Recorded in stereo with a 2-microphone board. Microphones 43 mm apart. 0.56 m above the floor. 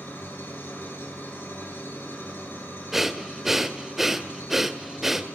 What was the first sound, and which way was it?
An engine running, 60° left (ahead or behind).